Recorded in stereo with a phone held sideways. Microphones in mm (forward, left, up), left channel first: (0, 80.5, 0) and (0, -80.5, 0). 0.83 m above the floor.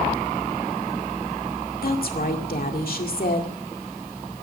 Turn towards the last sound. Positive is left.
turn(degrees=65)  # may be behind; listen again after turning